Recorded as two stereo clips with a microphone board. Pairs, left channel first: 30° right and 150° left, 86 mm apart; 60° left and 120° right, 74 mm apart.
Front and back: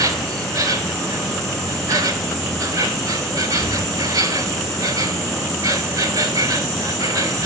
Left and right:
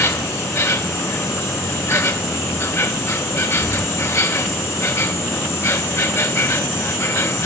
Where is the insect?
105° left, 3.5 m.